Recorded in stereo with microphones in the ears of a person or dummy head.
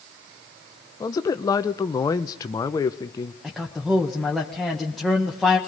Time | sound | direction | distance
1.0 | a man speaking | 20° left (ahead or behind) | 0.7 m
3.4 | a man speaking | centre (ahead or behind) | 1.4 m